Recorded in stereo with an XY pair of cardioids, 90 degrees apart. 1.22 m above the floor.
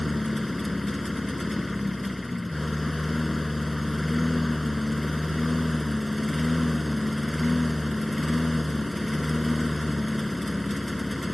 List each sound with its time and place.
0.0 s a lawn mower: 15° left